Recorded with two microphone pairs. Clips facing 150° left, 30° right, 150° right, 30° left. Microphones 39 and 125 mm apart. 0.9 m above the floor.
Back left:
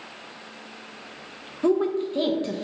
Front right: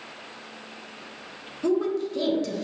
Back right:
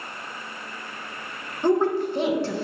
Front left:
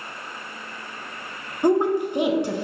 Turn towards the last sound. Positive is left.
turn(degrees=105)